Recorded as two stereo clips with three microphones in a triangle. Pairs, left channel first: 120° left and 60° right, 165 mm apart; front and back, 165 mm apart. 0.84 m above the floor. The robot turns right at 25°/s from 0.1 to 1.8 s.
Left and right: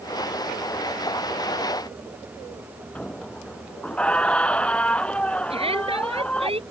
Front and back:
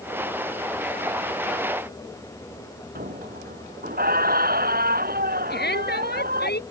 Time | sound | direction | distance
3.0 | a squeak | 155° right | ?
5.5 | a shout | 5° right | ?